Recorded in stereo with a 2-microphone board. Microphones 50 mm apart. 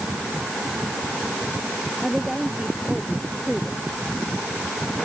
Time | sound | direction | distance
2.0 | a woman speaking | 10° right (ahead or behind) | ?